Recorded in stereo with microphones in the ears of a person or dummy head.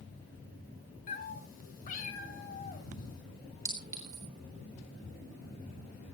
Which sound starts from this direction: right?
A clink, at 3.6 s.